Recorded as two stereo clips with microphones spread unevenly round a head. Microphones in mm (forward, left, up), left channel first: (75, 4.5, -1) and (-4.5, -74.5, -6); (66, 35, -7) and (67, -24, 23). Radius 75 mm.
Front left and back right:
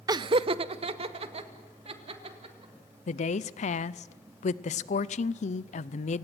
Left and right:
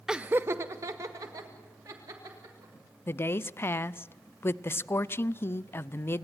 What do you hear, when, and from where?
0.1 s laughter: 105° right, 0.5 m
3.1 s a woman speaking: 35° left, 0.5 m